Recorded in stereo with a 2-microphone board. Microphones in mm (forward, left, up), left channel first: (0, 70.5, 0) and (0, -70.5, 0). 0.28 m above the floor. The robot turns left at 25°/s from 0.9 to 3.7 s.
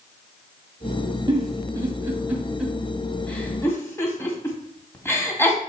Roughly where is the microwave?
I don't hear a microwave.